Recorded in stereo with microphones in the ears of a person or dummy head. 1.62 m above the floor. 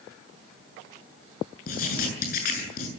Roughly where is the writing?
Left.